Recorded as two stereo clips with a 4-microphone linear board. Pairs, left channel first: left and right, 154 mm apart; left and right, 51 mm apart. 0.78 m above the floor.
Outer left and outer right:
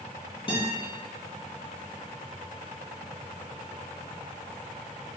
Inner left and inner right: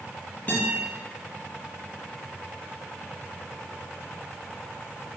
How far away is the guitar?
About 1.2 m.